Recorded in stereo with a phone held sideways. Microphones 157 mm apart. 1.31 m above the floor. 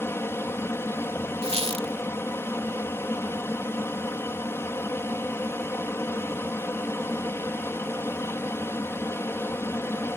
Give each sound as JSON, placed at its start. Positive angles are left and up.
{"t": 0.0, "sound": "an aircraft", "side_deg": 15}
{"t": 1.4, "sound": "a squeak", "side_deg": -40}